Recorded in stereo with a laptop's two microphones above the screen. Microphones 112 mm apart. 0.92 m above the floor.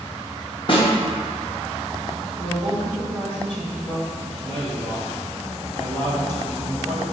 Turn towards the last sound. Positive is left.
turn(degrees=-35)  # may be behind; listen again after turning